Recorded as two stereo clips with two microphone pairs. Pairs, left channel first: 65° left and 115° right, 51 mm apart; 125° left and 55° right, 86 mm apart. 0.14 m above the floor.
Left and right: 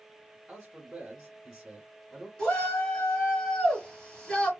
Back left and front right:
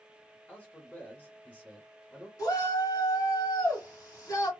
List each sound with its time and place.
0.5 s a man speaking: straight behind, 1.3 m
2.4 s a shout: 130° left, 1.8 m